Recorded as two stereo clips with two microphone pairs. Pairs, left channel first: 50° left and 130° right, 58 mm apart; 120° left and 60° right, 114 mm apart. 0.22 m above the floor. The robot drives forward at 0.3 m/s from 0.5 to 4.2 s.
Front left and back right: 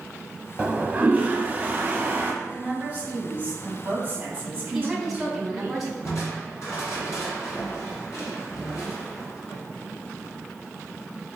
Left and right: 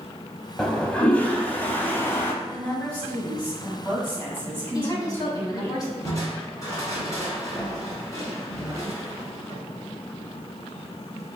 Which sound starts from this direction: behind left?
A woman speaking, at 4.7 s.